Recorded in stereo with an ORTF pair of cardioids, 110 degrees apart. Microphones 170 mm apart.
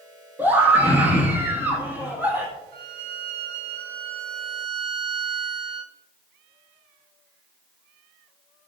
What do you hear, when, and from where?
0.4 s a scream: 10° right, 1.7 m
2.7 s a violin: 60° right, 1.8 m